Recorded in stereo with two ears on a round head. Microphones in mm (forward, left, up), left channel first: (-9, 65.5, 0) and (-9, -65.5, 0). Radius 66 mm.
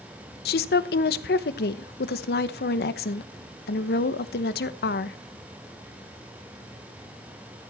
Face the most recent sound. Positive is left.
turn(degrees=75)  # may be behind; listen again after turning